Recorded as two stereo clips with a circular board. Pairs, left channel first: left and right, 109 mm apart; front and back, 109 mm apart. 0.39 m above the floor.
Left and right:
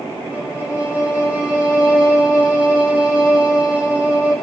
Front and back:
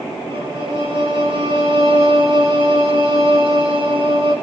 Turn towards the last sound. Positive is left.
turn(degrees=-160)